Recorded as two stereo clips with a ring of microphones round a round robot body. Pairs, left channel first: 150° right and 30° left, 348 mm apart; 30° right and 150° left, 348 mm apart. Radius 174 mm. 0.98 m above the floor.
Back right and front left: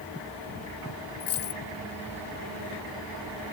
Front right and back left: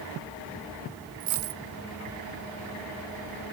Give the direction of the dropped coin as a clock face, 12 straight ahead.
7 o'clock.